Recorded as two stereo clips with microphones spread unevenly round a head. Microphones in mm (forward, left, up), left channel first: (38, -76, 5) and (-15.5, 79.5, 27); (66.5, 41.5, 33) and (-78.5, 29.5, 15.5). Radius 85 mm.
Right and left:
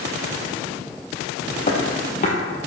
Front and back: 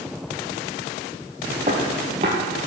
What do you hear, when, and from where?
1.7 s footsteps: 115° right, 2 m